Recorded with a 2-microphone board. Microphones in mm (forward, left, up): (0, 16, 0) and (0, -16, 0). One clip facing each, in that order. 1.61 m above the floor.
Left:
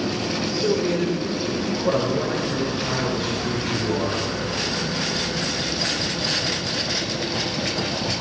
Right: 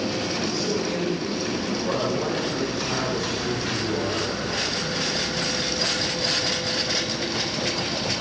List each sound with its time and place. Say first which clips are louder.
0.5 s a man speaking: left 4 dB; 60° left (ahead or behind), 6.5 m; by 4.3 s 50° left (ahead or behind), 10.5 m